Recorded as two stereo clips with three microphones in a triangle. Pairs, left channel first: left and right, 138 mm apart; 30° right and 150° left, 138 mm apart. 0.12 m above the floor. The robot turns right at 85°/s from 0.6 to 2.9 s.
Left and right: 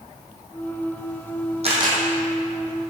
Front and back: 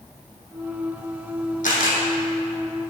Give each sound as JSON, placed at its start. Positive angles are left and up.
{"t": 1.6, "sound": "a camera shutter", "azimuth_deg": -50, "distance_m": 1.7}